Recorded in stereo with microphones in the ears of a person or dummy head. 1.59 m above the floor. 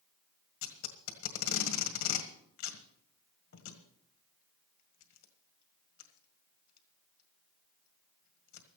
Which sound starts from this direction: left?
Tape being pulled, at 0.6 s.